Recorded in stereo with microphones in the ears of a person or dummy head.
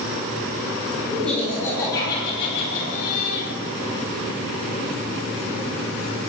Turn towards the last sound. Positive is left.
turn(degrees=60)  # may be behind; listen again after turning